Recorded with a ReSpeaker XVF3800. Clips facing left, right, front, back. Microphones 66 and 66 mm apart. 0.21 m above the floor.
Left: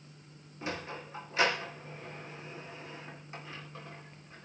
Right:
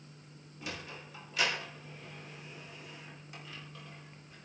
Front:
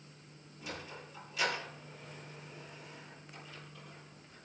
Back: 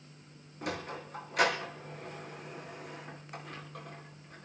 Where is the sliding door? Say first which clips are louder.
Left 5 dB, back 7 dB; 150° left, 3 m.